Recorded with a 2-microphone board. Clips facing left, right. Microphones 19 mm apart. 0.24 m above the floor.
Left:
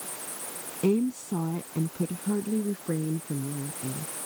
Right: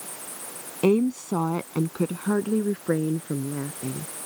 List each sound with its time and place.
0.8 s a woman speaking: 50° right (ahead or behind)